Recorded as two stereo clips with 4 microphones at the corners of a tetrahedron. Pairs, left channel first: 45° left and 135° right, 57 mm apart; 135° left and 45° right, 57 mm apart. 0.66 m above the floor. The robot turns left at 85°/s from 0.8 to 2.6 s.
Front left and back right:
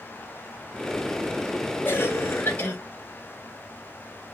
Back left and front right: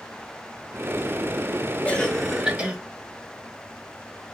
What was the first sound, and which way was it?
A cough, 80° left.